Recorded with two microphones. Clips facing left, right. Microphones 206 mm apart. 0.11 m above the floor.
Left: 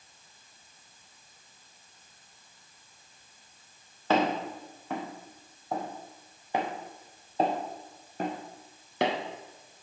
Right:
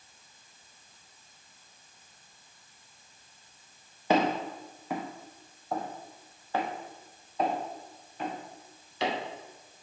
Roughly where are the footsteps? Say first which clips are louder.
Even; centre.